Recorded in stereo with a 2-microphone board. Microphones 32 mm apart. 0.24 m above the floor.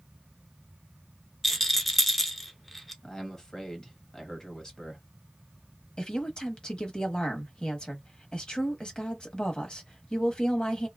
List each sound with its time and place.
1.4 s a rattle: 5° left (ahead or behind), 0.8 m
3.0 s a man speaking: 20° left (ahead or behind), 1.1 m
6.0 s a woman speaking: 30° left (ahead or behind), 1.0 m